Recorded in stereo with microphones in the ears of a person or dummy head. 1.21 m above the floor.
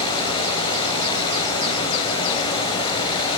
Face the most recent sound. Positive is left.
turn(degrees=25)  # may be behind; listen again after turning